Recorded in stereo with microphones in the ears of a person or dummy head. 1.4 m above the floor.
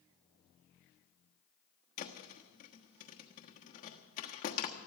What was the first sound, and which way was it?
A thud, 45° left (ahead or behind).